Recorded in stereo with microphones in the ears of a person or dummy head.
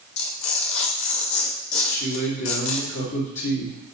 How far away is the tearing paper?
About 1.7 m.